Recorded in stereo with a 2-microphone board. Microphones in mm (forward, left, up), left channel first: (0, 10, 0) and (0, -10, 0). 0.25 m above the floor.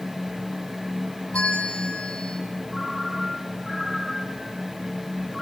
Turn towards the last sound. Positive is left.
turn(degrees=-10)  # may be behind; listen again after turning